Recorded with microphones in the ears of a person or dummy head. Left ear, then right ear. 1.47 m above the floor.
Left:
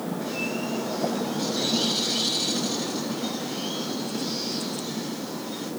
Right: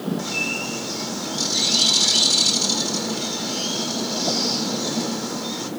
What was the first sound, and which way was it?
A bird, 75° right (ahead or behind).